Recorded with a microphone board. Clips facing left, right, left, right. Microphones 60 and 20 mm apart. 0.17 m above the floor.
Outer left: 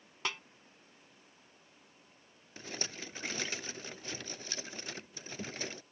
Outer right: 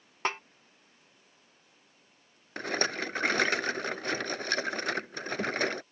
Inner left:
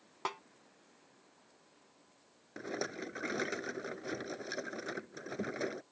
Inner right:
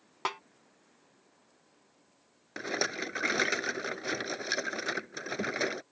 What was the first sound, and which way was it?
A snare drum, 35° right (ahead or behind).